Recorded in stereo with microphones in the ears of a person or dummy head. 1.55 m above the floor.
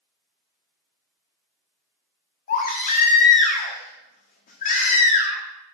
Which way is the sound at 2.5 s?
55° left (ahead or behind).